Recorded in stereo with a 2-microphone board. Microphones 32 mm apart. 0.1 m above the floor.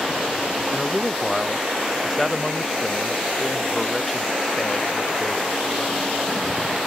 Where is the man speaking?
Centre (ahead or behind); by 6.1 s 10° left (ahead or behind).